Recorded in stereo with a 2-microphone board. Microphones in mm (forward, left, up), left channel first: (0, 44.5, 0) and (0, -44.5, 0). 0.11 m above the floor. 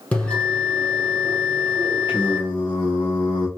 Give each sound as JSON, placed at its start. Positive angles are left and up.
{"t": 0.1, "sound": "a bell", "side_deg": 15, "distance_m": 3.0}
{"t": 2.1, "sound": "singing", "side_deg": 65, "distance_m": 2.5}